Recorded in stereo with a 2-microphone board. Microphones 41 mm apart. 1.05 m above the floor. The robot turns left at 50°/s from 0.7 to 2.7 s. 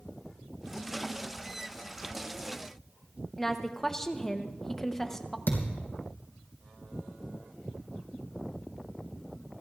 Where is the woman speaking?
10° left (ahead or behind), 0.8 m.